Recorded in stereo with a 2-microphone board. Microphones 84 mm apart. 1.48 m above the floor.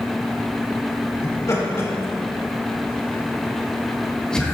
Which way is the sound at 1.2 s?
40° left (ahead or behind).